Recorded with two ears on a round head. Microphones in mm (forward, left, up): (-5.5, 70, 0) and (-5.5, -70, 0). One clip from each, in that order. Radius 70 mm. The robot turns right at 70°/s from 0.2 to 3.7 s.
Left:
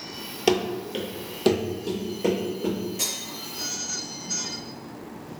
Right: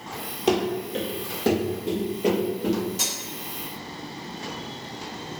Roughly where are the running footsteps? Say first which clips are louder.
Even; left.